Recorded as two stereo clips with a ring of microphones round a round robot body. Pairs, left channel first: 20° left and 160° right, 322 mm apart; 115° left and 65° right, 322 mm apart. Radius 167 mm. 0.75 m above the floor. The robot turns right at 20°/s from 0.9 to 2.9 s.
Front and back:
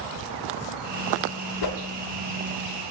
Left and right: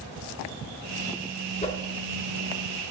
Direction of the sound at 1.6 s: 40° left.